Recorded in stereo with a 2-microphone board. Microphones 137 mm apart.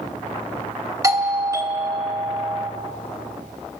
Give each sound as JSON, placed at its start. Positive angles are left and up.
{"t": 1.0, "sound": "a doorbell", "side_deg": -25, "distance_m": 2.0}